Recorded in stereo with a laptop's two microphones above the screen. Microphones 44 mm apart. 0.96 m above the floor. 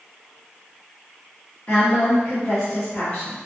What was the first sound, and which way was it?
A woman speaking, 30° left (ahead or behind).